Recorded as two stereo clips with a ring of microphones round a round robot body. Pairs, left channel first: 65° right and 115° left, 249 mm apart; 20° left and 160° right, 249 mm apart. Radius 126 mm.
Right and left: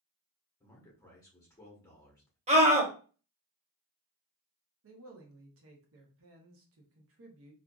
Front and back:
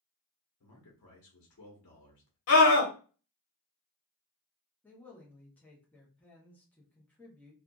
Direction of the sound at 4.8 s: 105° left.